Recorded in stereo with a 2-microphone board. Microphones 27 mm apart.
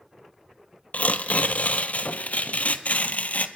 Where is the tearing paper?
65° left (ahead or behind), 1.1 m.